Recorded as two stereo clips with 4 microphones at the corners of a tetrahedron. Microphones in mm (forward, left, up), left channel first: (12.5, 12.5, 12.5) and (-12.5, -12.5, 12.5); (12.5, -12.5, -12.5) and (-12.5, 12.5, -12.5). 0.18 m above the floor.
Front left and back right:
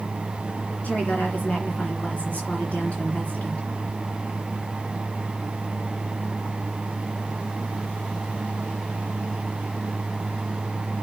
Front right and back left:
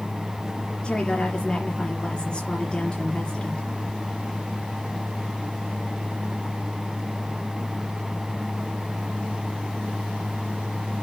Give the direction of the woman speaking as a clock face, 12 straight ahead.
12 o'clock.